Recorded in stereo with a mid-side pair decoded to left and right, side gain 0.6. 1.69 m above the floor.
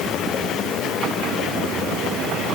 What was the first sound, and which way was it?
Only background noise.